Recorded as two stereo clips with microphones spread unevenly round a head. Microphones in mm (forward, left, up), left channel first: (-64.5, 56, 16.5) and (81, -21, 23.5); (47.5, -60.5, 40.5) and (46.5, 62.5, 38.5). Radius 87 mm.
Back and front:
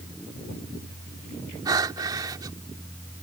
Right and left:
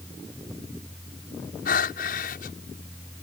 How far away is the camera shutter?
No camera shutter in this recording.